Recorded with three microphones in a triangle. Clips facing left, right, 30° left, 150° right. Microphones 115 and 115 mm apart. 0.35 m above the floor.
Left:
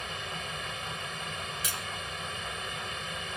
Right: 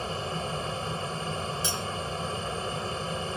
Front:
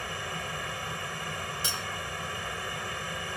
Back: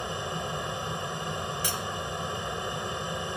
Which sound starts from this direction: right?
An aircraft, at 0.0 s.